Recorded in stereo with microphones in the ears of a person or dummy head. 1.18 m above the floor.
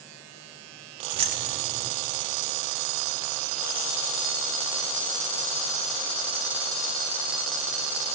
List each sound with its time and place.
1.1 s keys jangling: 35° right (ahead or behind), 0.6 m